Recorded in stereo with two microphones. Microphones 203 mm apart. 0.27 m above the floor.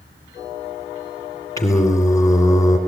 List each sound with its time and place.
1.6 s singing: 15° left (ahead or behind), 3 m